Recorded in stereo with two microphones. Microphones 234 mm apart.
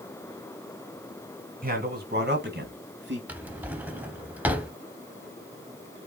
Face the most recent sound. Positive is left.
turn(degrees=-5)  # may be behind; listen again after turning